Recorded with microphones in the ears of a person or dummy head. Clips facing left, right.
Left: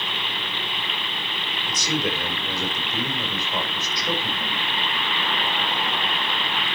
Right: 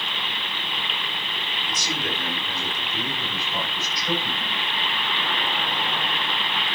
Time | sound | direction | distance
1.7 | a man speaking | 60° left (ahead or behind) | 4.5 m